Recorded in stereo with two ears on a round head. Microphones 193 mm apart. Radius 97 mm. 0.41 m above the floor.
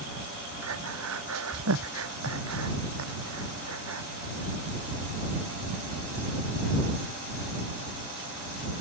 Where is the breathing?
70° right (ahead or behind).